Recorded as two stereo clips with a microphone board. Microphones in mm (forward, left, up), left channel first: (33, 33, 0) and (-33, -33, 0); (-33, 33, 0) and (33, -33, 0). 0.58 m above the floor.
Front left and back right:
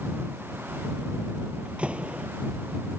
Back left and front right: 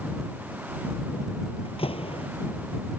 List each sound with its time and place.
1.6 s a door slam: 145° left